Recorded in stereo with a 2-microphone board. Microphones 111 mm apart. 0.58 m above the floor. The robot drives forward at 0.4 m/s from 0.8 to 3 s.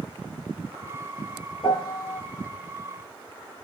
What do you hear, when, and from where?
1.6 s a piano: 40° left (ahead or behind), 0.7 m; by 2.2 s 30° left (ahead or behind), 0.9 m